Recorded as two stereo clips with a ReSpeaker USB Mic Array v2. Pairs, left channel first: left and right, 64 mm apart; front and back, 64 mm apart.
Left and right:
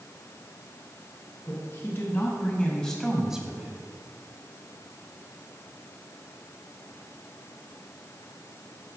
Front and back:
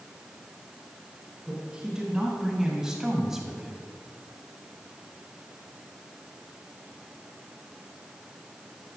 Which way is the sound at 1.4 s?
105° left.